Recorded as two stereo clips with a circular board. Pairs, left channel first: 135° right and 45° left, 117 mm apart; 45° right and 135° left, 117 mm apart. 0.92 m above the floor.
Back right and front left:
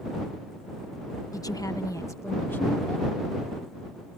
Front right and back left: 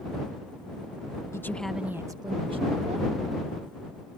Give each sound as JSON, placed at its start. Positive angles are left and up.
{"t": 1.3, "sound": "a woman speaking", "azimuth_deg": -95}